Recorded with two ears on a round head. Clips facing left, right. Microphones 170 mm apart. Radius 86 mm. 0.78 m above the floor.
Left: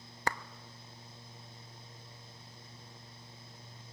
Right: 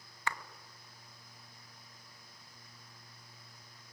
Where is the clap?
35° left (ahead or behind), 0.9 m.